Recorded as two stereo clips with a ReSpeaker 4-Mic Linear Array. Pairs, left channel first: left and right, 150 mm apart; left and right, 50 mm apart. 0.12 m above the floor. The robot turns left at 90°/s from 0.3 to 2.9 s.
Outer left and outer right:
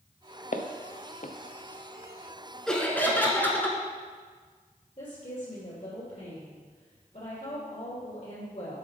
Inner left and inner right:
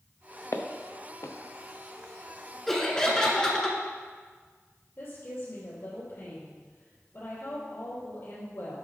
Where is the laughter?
Centre (ahead or behind), 1.4 m; by 3.8 s 15° left (ahead or behind), 1.4 m.